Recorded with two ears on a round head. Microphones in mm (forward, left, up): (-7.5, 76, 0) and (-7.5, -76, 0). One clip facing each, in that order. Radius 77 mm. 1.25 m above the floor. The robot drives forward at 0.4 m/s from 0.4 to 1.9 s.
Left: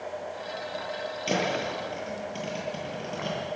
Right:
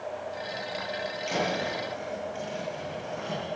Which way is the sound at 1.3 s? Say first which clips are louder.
Left 2 dB; 60° left (ahead or behind).